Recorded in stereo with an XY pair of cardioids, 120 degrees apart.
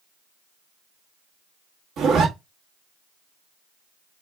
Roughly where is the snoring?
I don't hear snoring.